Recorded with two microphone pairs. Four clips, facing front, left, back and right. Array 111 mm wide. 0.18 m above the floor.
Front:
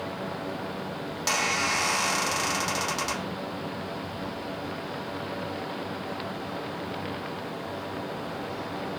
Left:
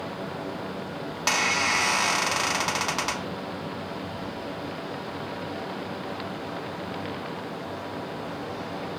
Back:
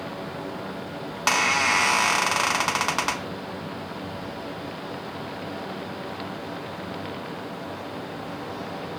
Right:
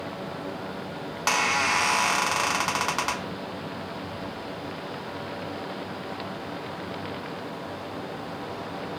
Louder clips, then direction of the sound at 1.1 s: Right 2 dB, back 6 dB; 165° right.